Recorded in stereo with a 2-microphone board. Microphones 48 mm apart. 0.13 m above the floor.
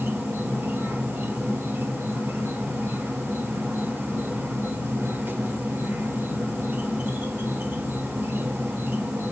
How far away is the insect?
About 2 m.